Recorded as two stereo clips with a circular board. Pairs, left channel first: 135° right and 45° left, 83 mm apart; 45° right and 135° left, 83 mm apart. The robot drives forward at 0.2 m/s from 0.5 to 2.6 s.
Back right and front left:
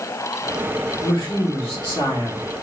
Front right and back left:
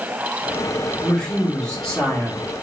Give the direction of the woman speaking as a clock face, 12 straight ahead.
4 o'clock.